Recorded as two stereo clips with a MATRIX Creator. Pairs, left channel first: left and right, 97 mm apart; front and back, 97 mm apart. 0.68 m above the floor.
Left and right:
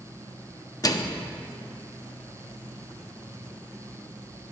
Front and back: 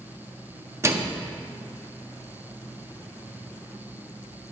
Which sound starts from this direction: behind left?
A microwave, at 0.8 s.